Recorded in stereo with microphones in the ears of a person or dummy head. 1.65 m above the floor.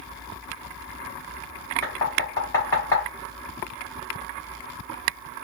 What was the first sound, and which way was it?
Knocking, 10° left (ahead or behind).